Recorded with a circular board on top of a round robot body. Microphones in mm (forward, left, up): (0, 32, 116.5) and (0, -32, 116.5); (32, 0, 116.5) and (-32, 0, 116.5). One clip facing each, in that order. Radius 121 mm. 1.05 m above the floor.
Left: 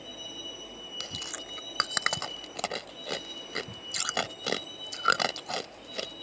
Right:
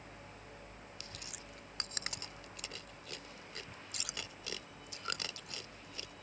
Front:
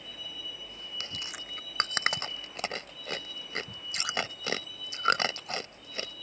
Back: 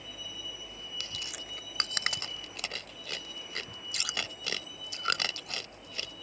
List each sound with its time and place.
0.0 s a vehicle: 100° left; by 6.2 s 110° left
1.0 s chewing: 60° left